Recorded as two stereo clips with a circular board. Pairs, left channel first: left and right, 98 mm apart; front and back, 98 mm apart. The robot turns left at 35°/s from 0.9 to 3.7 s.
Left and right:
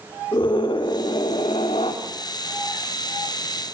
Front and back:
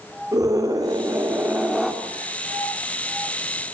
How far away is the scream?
About 3.5 m.